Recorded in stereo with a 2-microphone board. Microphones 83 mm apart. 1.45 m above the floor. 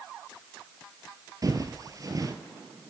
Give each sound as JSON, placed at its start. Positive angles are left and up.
{"t": 1.4, "sound": "footsteps", "side_deg": -45, "distance_m": 1.9}